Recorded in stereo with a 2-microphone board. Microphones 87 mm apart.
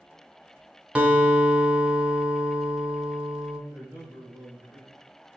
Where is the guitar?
15° right (ahead or behind), 0.6 m.